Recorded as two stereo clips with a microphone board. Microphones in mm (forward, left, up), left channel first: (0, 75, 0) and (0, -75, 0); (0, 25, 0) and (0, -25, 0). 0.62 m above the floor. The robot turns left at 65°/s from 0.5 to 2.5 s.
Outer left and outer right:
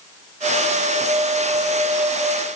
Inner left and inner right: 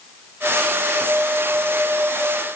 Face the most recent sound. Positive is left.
No sound to turn to.